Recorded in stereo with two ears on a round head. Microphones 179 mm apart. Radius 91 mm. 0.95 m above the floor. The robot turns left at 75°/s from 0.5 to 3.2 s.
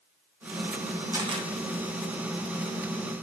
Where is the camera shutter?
15° right (ahead or behind), 0.6 m; by 1.5 s 30° right (ahead or behind), 0.6 m.